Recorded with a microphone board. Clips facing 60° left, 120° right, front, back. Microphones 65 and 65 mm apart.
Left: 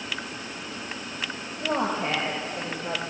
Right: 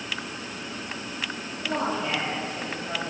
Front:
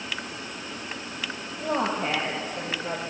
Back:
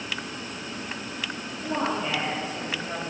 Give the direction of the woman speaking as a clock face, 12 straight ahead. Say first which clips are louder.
Left 2 dB, front 1 dB; 11 o'clock.